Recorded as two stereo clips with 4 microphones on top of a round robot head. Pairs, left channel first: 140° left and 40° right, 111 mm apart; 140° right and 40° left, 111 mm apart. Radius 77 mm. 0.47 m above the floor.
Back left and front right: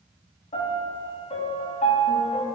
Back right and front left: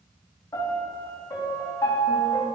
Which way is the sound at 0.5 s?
165° left.